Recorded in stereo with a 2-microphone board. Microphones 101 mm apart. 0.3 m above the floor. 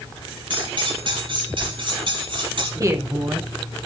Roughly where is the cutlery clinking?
Right.